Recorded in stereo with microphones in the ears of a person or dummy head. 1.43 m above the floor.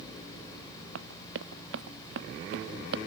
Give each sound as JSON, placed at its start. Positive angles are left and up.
{"t": 0.9, "sound": "running footsteps", "side_deg": -70}